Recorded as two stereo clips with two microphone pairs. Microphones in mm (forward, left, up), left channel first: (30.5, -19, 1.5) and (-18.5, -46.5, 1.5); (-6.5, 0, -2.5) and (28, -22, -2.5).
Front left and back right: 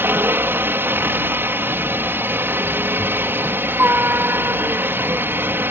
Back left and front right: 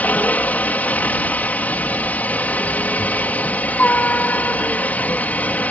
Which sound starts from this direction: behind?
A helicopter, at 0.0 s.